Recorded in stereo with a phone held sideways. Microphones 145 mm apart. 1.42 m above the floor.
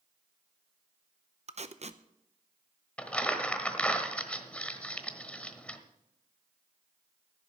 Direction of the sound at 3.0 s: 10° left (ahead or behind).